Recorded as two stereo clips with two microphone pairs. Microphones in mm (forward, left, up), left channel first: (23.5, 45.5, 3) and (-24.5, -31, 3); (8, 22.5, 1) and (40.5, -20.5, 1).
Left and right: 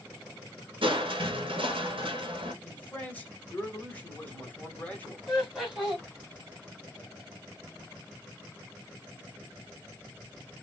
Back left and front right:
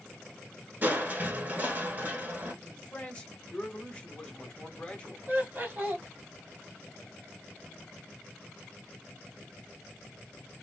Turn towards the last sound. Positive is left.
turn(degrees=-45)